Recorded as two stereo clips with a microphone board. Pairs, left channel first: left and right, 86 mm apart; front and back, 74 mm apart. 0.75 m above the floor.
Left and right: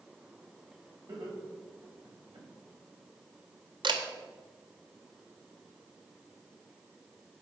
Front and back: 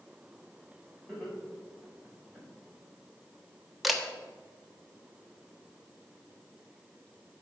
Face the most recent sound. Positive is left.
turn(degrees=-90)